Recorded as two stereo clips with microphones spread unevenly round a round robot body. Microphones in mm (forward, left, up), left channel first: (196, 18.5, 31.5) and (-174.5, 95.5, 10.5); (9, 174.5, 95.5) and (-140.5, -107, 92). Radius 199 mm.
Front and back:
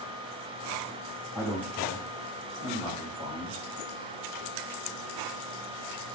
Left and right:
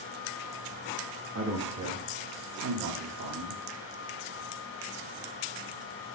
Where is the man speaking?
110° right, 1.3 m; by 3.6 s 115° right, 2.5 m.